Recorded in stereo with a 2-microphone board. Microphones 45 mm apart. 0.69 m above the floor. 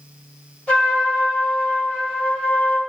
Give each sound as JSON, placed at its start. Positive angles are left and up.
{"t": 0.7, "sound": "a trumpet", "side_deg": 30, "distance_m": 2.0}